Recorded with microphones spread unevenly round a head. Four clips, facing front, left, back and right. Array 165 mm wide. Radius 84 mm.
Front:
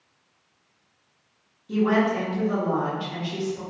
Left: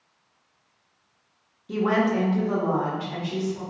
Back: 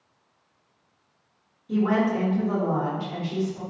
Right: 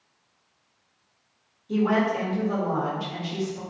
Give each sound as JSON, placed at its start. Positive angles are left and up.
{"t": 1.7, "sound": "a woman speaking", "azimuth_deg": 75, "distance_m": 1.2}